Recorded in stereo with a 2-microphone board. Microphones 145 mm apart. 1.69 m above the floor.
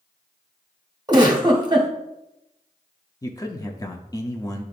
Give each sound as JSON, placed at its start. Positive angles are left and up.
{"t": 1.1, "sound": "a giggle", "side_deg": -30, "distance_m": 1.2}
{"t": 3.2, "sound": "a man speaking", "side_deg": 25, "distance_m": 0.7}